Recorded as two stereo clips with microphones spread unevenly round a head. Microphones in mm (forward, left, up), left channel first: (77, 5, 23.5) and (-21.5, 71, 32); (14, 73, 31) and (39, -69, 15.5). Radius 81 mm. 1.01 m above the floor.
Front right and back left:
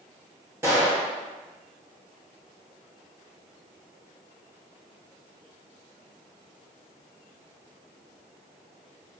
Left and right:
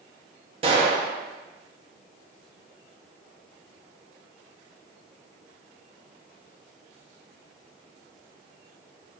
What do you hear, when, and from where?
0.6 s a gunshot: 140° right, 0.7 m